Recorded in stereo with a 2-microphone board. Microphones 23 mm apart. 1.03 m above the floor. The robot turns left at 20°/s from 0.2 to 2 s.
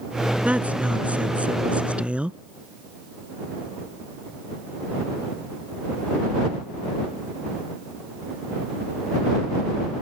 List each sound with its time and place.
0.5 s a woman speaking: 80° right; by 2.4 s 110° right